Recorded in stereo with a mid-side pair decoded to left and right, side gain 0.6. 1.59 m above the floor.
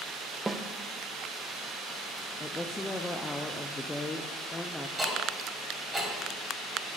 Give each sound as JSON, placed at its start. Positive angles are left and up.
{"t": 0.5, "sound": "a snare drum", "azimuth_deg": -10, "distance_m": 0.8}
{"t": 2.4, "sound": "a woman speaking", "azimuth_deg": 15, "distance_m": 0.7}
{"t": 5.0, "sound": "ticking", "azimuth_deg": -15, "distance_m": 4.0}